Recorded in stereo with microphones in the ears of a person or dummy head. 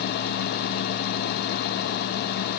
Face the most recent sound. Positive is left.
No sound to turn to.